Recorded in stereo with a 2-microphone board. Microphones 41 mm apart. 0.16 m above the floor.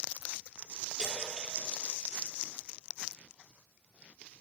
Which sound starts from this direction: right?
A splash, at 1.0 s.